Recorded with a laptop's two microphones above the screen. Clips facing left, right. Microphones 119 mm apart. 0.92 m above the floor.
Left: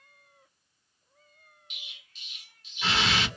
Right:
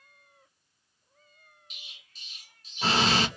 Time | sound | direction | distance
1.7 | an explosion | 40° right (ahead or behind) | 0.6 m